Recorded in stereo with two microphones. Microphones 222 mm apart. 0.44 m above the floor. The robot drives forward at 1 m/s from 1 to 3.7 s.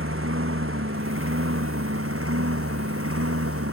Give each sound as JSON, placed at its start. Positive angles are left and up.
{"t": 0.0, "sound": "a lawn mower", "side_deg": -75}